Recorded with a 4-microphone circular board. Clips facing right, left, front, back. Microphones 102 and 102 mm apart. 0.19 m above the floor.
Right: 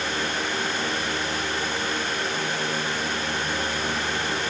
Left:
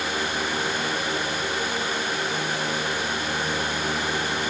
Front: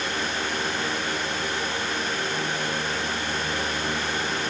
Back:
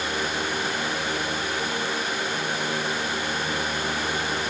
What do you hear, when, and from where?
Only background noise.